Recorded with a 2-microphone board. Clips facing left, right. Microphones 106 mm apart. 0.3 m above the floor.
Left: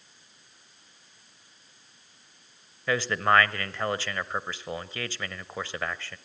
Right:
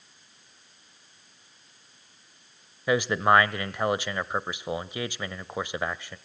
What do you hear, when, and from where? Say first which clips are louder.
2.9 s a man speaking: right 3 dB; 15° right (ahead or behind), 1.0 m